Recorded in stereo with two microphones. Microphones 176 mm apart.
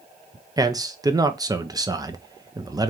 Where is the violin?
No violin in this recording.